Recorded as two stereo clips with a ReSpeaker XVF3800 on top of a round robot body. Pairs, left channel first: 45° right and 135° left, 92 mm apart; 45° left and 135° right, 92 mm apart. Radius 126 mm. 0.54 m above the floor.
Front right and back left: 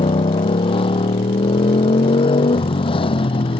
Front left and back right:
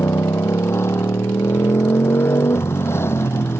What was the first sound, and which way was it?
A motorcycle, 20° right.